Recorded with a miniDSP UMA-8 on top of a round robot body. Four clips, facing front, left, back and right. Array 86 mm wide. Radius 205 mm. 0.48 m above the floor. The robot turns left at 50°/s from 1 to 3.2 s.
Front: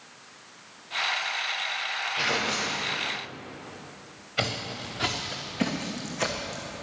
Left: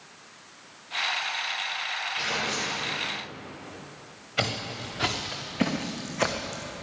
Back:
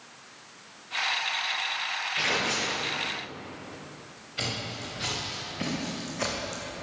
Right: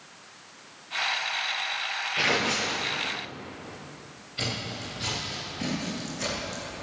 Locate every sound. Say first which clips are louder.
2.2 s tearing paper: right 6 dB, even; 95° right, 3.5 m; by 2.9 s 130° right, 3.5 m
4.4 s footsteps: left 4 dB, front 4 dB; 60° left, 4.5 m; by 6.7 s 100° left, 2.5 m